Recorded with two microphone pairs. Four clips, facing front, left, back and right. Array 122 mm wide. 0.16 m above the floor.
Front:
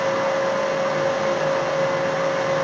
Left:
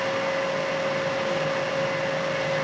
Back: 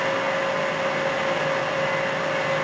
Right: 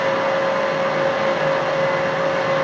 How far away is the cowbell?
No cowbell in this recording.